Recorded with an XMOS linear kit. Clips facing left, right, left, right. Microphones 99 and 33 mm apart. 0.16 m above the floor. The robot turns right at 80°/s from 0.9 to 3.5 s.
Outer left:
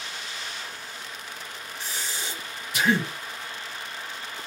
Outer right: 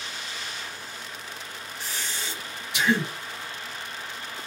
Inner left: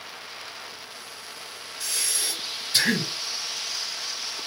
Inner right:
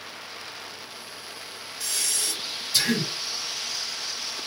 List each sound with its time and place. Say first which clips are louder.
1.8 s breathing: even, even; 5° right, 2.5 m; by 3.1 s 100° left, 2.5 m